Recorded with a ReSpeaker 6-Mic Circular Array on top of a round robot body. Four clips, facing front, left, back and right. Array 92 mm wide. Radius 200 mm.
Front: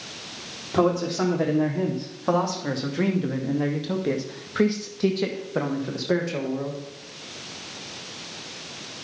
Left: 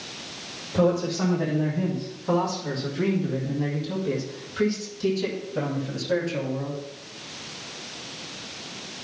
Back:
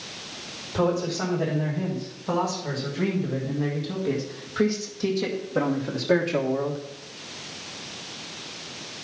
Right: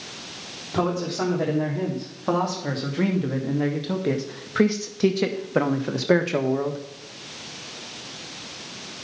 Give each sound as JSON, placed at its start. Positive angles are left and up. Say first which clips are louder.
{"t": 0.7, "sound": "a man speaking", "louder": "left 2 dB, front 3 dB", "azimuth_deg": -30, "distance_m": 3.0}